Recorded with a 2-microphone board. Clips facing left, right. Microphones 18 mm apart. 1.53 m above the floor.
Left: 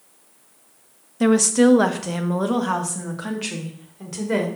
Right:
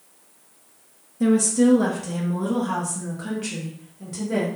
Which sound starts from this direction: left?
A woman speaking, at 1.2 s.